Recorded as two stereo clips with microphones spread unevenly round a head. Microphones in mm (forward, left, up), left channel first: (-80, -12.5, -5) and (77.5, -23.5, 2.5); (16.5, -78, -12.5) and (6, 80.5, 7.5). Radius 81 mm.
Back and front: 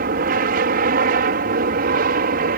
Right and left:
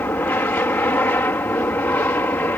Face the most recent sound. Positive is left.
turn(degrees=-10)